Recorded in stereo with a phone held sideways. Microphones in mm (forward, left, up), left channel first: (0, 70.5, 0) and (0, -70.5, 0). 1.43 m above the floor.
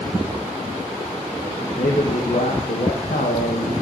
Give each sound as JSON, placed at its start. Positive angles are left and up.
{"t": 1.8, "sound": "a man speaking", "side_deg": 80, "distance_m": 1.6}